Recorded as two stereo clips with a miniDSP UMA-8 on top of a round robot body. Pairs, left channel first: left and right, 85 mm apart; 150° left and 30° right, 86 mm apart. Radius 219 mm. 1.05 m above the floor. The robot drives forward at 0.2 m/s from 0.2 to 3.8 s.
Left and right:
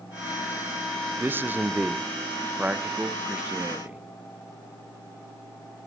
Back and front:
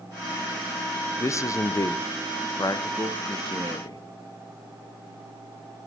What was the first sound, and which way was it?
A man speaking, 155° right.